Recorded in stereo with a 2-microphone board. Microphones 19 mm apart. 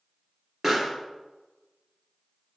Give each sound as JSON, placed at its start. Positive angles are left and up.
{"t": 0.6, "sound": "a pop", "side_deg": -30, "distance_m": 1.9}